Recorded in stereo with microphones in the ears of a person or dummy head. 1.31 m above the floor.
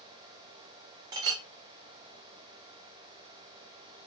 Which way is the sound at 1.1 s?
30° right (ahead or behind).